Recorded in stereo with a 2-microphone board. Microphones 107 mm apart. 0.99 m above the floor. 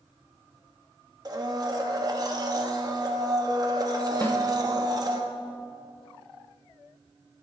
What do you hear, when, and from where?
1.2 s a blender: 35° right (ahead or behind), 1.2 m
4.2 s a snare drum: 25° left (ahead or behind), 1.2 m